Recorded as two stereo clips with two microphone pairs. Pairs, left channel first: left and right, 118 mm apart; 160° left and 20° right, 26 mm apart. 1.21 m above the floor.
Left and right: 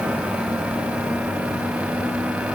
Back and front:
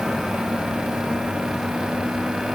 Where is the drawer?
I don't hear a drawer.